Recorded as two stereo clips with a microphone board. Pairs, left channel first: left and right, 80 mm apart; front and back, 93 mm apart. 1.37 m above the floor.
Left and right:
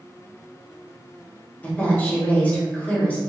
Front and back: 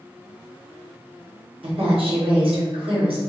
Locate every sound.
1.6 s a woman speaking: 160° left, 1.0 m